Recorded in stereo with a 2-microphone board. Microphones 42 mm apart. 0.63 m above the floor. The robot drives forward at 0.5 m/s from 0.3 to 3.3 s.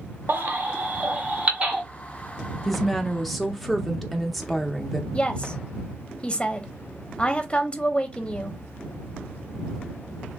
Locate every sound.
0.3 s a baby crying: 60° right (ahead or behind), 0.8 m; by 1.8 s 30° right (ahead or behind), 1.3 m
2.6 s a woman speaking: 5° left (ahead or behind), 0.7 m; by 5.0 s centre (ahead or behind), 0.9 m
5.1 s a woman speaking: 25° left (ahead or behind), 0.7 m